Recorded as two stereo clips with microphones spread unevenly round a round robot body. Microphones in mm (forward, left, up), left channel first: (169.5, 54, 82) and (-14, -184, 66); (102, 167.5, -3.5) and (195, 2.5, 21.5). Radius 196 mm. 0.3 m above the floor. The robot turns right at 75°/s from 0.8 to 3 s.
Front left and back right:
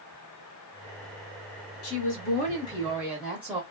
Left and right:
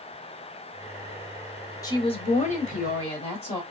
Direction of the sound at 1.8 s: 65° left.